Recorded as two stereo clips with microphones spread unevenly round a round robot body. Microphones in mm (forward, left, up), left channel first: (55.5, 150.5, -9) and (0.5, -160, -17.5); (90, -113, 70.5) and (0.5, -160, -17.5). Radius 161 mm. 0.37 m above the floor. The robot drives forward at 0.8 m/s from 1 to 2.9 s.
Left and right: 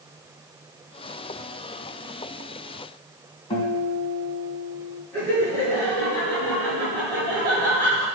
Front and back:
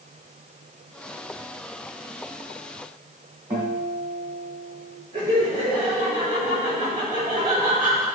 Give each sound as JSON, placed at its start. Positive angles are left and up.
{"t": 3.5, "sound": "a guitar", "azimuth_deg": 150, "distance_m": 2.5}
{"t": 5.1, "sound": "laughter", "azimuth_deg": 165, "distance_m": 4.5}